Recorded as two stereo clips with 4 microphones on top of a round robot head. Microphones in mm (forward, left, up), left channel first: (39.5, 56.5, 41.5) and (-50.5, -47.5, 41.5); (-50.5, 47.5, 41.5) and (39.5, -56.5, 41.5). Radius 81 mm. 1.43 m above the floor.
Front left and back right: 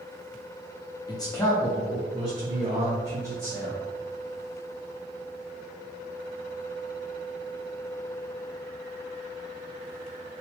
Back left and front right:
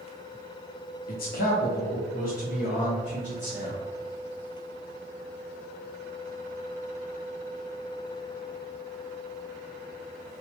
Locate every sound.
1.1 s a man speaking: 105° left, 0.6 m; by 3.8 s 160° left, 2 m